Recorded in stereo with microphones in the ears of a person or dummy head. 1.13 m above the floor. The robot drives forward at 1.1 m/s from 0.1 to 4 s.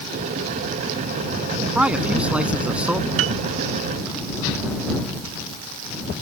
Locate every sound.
1.8 s a man speaking: 5° right (ahead or behind)
3.2 s a piano: 80° right; by 3.4 s 75° right (ahead or behind)